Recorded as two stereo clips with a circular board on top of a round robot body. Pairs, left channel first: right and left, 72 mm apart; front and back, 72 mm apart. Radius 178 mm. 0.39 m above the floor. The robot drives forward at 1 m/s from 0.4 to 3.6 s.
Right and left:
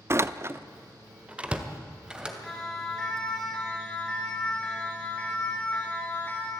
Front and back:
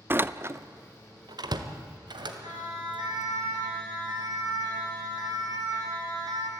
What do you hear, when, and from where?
0.1 s a door slam: 130° left, 0.7 m; by 2.3 s 170° left, 2.5 m
2.4 s a siren: 175° right, 6.5 m; by 6.5 s 150° right, 5 m